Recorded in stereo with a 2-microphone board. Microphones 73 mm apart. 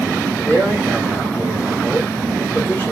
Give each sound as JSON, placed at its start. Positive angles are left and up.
{"t": 0.5, "sound": "a man speaking", "side_deg": 25, "distance_m": 1.4}